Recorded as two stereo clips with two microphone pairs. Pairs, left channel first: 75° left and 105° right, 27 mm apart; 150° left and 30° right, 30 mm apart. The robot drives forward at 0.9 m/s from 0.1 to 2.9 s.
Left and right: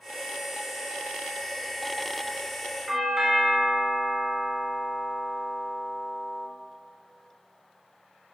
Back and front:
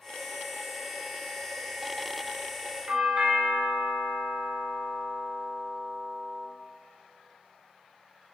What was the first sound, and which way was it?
A doorbell, 40° right.